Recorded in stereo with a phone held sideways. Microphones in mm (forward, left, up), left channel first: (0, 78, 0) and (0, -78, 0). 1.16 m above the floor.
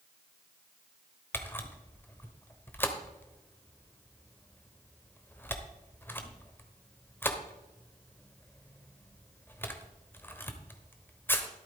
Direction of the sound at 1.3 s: 15° left (ahead or behind).